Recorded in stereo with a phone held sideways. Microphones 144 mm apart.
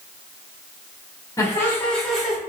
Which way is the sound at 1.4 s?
25° left (ahead or behind).